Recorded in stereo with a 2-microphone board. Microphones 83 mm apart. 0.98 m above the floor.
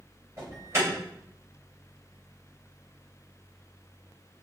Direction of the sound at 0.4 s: 30° right (ahead or behind).